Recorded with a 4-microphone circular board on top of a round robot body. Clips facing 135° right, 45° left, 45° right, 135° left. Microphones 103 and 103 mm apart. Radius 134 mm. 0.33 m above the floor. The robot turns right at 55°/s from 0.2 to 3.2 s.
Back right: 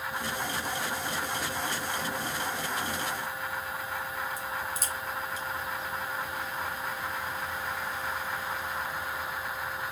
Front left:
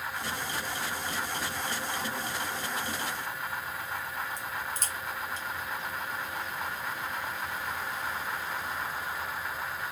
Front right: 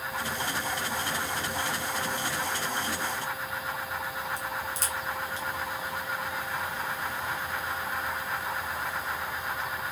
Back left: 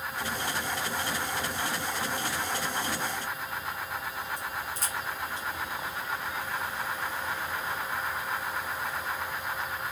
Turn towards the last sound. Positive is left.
turn(degrees=-50)